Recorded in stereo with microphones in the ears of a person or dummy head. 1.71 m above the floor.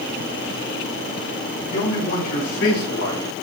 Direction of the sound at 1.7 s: 55° left (ahead or behind).